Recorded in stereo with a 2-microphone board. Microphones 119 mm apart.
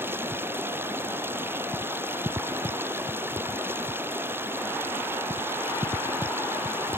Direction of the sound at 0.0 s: 20° right (ahead or behind).